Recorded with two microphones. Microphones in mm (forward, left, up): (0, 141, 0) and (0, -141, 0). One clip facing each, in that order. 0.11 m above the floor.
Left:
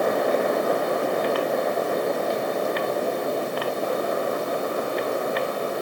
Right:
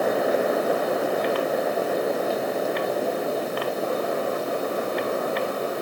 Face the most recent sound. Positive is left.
No sound to turn to.